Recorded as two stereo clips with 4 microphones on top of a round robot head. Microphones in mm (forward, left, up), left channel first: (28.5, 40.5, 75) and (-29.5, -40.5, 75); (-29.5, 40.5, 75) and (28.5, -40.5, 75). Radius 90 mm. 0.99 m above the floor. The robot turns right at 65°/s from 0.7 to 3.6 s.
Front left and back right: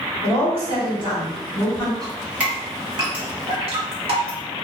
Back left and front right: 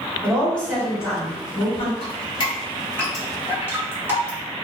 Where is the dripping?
135° left, 1.3 m; by 4.4 s 120° right, 1.3 m.